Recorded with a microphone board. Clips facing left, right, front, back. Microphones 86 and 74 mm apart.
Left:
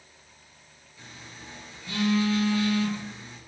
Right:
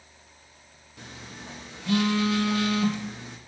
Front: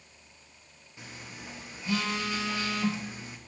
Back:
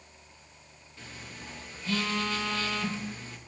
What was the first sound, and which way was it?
A phone buzzing, 75° right.